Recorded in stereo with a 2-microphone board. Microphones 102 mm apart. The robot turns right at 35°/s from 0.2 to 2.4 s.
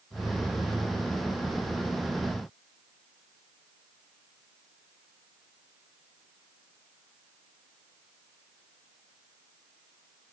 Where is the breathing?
No breathing in this recording.